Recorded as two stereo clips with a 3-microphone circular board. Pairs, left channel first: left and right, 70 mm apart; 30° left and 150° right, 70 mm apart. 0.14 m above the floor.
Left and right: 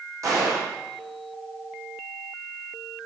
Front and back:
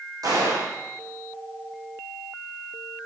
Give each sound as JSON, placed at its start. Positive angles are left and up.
{"t": 0.2, "sound": "a gunshot", "azimuth_deg": -125, "distance_m": 6.0}